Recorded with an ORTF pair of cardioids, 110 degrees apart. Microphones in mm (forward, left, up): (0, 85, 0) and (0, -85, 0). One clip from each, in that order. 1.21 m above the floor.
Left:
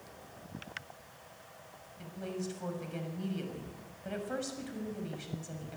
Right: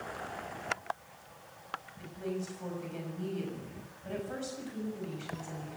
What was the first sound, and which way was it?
A woman speaking, 20° left.